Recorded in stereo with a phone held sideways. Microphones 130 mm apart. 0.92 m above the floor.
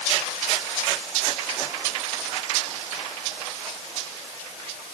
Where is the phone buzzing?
I don't hear a phone buzzing.